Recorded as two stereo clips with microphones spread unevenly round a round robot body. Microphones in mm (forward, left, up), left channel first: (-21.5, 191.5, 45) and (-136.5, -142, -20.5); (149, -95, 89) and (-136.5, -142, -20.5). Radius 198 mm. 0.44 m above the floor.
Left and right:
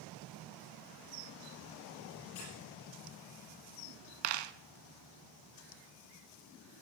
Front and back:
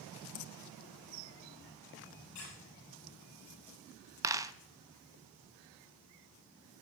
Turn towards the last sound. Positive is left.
turn(degrees=-80)